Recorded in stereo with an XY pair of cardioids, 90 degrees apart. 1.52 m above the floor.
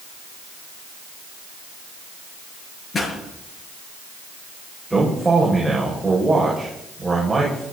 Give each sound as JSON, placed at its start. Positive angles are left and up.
{"t": 2.9, "sound": "a pop", "azimuth_deg": 45, "distance_m": 8.5}
{"t": 4.9, "sound": "a man speaking", "azimuth_deg": -10, "distance_m": 6.0}